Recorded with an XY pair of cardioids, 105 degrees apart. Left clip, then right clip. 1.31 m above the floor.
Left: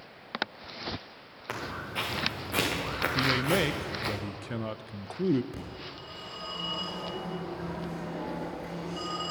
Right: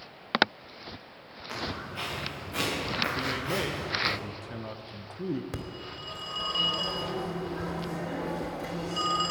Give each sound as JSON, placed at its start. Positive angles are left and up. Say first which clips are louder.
{"t": 1.5, "sound": "footsteps", "louder": "even", "azimuth_deg": 65, "distance_m": 5.5}
{"t": 3.1, "sound": "a man speaking", "louder": "left 4 dB", "azimuth_deg": 45, "distance_m": 0.5}
{"t": 5.5, "sound": "a phone ringing", "louder": "right 2 dB", "azimuth_deg": -60, "distance_m": 3.0}